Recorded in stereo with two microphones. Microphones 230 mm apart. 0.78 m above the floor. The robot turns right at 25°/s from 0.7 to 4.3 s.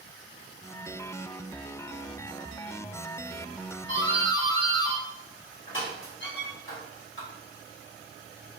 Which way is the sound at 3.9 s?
55° left (ahead or behind).